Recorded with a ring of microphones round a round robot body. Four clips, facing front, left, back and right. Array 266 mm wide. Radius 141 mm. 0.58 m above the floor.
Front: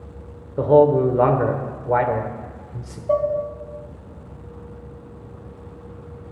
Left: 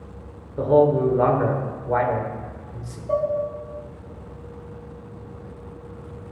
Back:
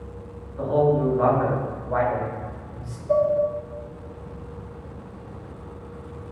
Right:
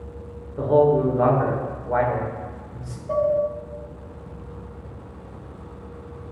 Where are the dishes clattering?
Straight ahead, 1.4 m.